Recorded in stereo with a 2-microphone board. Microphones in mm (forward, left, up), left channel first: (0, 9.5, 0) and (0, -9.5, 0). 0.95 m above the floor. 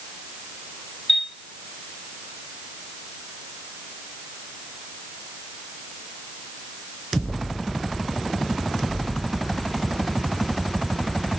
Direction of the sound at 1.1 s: 20° left (ahead or behind).